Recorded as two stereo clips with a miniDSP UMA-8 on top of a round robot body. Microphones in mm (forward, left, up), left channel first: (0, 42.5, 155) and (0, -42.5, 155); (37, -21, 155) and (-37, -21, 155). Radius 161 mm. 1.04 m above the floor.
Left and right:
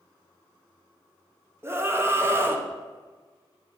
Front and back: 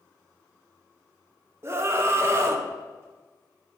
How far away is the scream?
About 0.9 m.